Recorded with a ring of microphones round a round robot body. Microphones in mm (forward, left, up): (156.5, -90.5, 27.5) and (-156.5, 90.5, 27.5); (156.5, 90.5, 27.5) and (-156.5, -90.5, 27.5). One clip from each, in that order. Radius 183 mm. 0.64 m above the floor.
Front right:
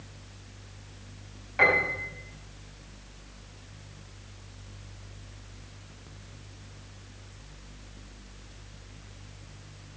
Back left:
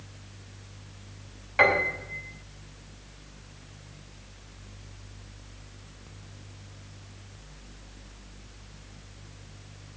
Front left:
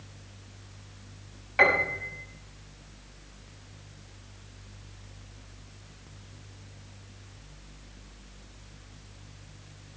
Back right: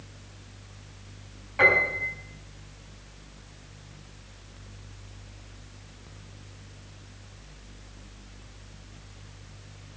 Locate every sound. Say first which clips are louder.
1.6 s a piano: back left 1 dB, back right 2 dB; 85° left, 5 m